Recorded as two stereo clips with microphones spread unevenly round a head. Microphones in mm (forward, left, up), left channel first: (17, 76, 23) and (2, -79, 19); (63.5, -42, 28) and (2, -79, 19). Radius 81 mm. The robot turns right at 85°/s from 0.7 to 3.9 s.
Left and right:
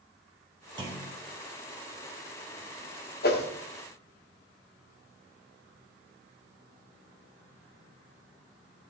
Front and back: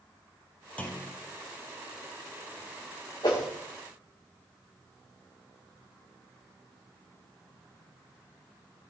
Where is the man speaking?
No man speaking in this recording.